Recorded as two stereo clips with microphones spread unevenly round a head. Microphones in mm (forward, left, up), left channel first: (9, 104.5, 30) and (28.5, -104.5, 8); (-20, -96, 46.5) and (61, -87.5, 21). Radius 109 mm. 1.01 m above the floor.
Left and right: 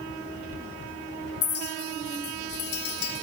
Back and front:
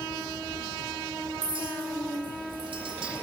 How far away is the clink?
About 1.3 m.